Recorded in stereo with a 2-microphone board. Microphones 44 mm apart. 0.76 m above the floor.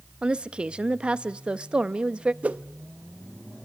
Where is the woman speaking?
25° right (ahead or behind), 0.5 m.